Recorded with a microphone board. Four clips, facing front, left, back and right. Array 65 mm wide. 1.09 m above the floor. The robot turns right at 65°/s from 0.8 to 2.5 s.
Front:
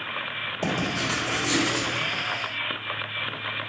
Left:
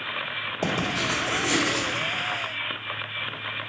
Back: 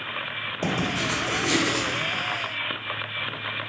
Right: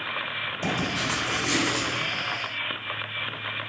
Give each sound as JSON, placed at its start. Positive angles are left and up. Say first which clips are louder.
{"t": 0.6, "sound": "writing", "louder": "left 2 dB, back 1 dB", "azimuth_deg": 95, "distance_m": 1.0}